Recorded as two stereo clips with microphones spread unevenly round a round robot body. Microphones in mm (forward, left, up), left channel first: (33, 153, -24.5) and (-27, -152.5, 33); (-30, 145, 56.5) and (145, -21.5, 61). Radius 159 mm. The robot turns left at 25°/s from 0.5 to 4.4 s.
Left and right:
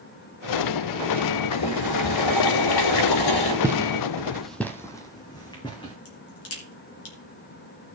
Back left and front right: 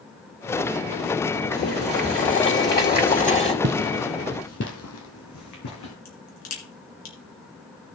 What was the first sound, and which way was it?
Boiling, 120° left.